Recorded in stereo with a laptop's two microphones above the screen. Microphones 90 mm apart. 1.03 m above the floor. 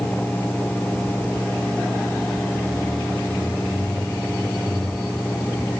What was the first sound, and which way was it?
A fan, 15° left (ahead or behind).